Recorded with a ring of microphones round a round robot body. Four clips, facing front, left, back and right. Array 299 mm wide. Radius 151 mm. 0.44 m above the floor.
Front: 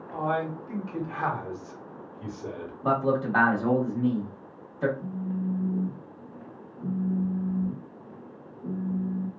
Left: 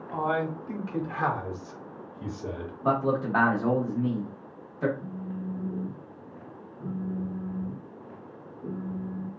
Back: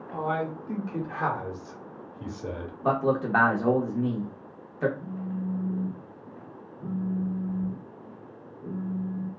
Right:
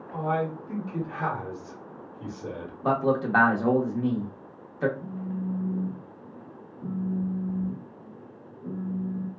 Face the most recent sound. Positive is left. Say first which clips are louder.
# right 3 dB, front 2 dB
turn(degrees=70)